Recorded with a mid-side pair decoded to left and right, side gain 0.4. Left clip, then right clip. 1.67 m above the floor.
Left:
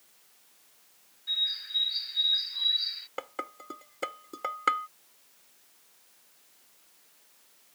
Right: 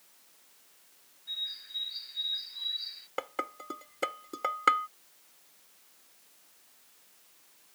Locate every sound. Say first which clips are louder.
1.3 s a bird: left 7 dB; 60° left
3.2 s dishes clattering: right 2 dB; 15° right